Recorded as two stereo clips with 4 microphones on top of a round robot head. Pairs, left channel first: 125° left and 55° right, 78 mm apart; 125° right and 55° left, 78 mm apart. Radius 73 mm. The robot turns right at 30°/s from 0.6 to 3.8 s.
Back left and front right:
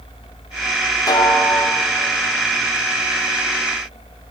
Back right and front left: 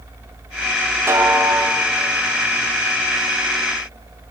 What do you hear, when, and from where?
1.1 s a snare drum: 105° left, 0.7 m; by 1.8 s 130° left, 0.7 m